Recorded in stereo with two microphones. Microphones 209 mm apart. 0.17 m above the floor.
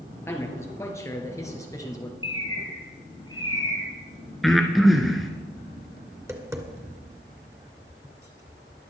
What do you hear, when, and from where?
0.3 s a man speaking: 10° left (ahead or behind), 3 m; by 2.1 s 15° left (ahead or behind), 2.5 m
2.2 s a bird: 20° left (ahead or behind), 4 m
4.4 s breathing: centre (ahead or behind), 1.5 m
6.1 s tapping: 15° right (ahead or behind), 1.8 m